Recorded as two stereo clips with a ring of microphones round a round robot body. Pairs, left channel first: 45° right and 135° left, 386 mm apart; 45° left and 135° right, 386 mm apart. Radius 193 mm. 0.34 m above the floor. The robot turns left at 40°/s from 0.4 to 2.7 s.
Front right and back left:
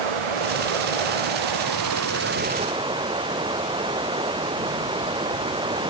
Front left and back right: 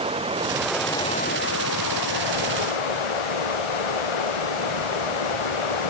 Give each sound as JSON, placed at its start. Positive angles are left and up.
{"t": 0.0, "sound": "running water", "azimuth_deg": 150}